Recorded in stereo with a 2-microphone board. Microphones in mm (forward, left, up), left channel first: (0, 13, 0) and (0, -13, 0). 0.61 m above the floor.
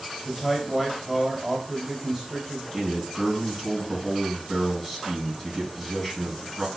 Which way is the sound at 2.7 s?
Centre (ahead or behind).